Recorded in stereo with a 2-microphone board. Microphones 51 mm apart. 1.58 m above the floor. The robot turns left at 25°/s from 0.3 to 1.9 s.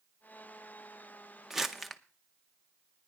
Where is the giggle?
No giggle in this recording.